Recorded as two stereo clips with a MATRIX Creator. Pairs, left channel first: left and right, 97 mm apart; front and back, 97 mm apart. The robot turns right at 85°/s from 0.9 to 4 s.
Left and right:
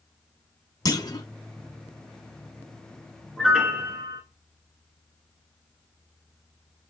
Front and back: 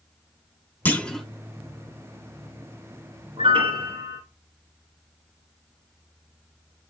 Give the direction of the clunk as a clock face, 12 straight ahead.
10 o'clock.